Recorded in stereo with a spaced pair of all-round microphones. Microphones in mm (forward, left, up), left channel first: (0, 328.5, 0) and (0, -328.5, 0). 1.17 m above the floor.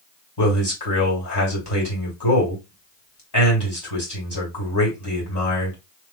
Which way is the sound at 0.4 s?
35° left (ahead or behind).